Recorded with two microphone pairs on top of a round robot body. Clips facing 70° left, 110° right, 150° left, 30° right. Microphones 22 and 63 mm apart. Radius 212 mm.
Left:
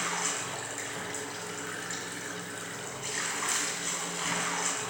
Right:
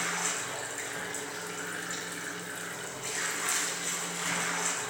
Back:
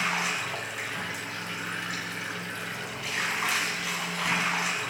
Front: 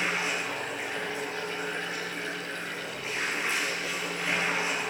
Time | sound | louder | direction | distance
0.0 | running water | even, back 1 dB | 145° left | 2 m